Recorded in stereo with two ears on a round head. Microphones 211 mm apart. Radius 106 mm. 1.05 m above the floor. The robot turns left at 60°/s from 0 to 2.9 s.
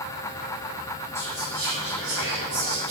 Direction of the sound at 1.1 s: 10° left.